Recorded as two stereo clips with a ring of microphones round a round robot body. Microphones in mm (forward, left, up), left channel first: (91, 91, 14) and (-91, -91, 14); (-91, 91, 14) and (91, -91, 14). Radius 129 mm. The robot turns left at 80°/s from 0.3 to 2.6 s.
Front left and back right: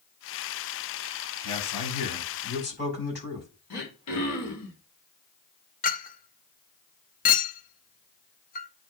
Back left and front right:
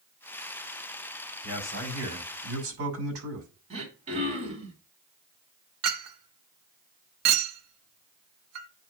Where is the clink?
15° right, 0.9 m.